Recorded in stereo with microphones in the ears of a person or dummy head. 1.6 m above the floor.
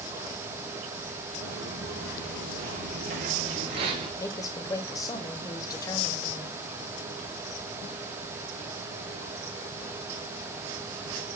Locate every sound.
1.4 s footsteps: 60° right (ahead or behind), 3.5 m; by 4.1 s 25° right (ahead or behind), 1.7 m
4.2 s a woman speaking: 20° left (ahead or behind), 1.0 m